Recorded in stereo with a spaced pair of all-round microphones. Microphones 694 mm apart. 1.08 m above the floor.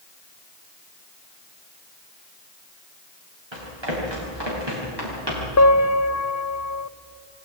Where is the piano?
25° left (ahead or behind), 0.6 m.